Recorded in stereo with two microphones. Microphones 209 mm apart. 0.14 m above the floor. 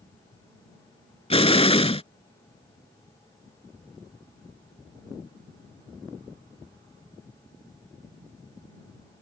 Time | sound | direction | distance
1.3 | an explosion | 30° left (ahead or behind) | ?